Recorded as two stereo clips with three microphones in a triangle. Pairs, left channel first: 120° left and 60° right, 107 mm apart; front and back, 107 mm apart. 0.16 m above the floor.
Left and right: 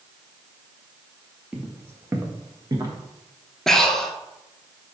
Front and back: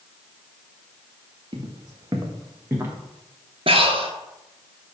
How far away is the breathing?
About 0.7 m.